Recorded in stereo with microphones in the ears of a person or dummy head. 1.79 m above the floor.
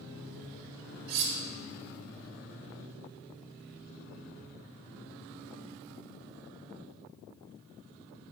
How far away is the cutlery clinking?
About 1.3 m.